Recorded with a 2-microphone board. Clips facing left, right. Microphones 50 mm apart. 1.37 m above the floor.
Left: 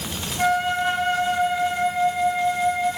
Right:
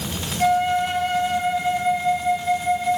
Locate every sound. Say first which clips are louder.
0.4 s a flute: right 2 dB; 45° left (ahead or behind), 8 m